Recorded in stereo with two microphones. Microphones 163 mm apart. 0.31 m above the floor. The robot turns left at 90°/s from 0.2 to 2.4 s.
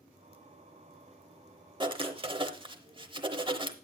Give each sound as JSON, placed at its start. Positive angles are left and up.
{"t": 1.8, "sound": "writing", "azimuth_deg": -60, "distance_m": 0.8}